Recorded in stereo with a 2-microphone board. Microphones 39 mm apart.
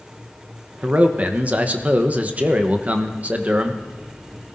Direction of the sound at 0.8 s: 40° right (ahead or behind).